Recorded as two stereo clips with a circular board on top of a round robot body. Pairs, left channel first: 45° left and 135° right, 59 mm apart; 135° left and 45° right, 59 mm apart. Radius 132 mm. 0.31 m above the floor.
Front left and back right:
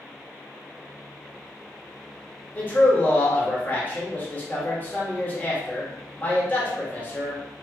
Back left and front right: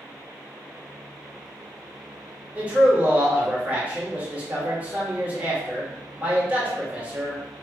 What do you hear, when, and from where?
2.5 s a man speaking: 10° left, 1.6 m